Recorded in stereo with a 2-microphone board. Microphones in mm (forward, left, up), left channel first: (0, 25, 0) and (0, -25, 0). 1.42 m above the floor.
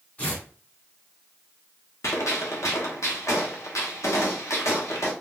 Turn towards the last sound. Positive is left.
turn(degrees=80)